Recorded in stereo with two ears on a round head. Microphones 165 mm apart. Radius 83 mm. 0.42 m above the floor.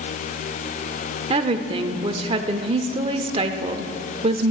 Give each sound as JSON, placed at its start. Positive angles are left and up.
{"t": 1.3, "sound": "a woman speaking", "side_deg": -30, "distance_m": 0.8}